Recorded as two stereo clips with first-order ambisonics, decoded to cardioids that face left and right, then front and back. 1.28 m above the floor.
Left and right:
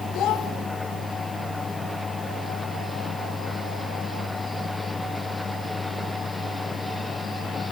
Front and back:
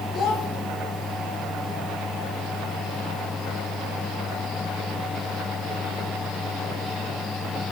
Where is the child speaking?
55° left, 1.3 m.